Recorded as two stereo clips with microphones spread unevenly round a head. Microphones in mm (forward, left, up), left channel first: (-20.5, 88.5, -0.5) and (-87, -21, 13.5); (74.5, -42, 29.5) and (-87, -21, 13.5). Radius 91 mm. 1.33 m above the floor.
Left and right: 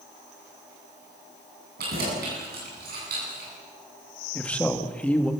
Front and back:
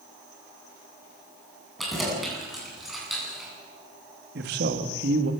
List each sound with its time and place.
1.8 s keys jangling: 95° right, 9 m; by 3.5 s 100° right, 9.5 m
4.3 s a man speaking: 140° left, 2.5 m